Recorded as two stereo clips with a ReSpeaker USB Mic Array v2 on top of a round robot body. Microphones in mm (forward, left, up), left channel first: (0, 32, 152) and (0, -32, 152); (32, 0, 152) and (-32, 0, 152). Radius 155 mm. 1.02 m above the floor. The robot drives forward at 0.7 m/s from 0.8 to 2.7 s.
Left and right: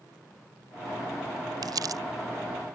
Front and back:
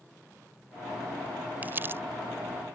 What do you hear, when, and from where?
1.6 s crumpling: 115° right; by 2.0 s 125° right